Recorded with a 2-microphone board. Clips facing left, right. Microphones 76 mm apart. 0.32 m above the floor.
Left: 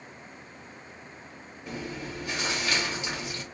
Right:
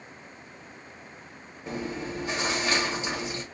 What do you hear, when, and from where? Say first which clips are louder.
1.7 s chewing: right 4 dB; 25° right (ahead or behind), 1.1 m